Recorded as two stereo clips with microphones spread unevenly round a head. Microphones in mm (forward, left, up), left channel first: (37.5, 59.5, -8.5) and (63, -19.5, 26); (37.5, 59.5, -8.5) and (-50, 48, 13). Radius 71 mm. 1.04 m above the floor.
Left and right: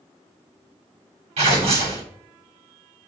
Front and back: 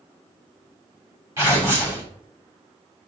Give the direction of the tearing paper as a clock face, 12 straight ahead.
3 o'clock.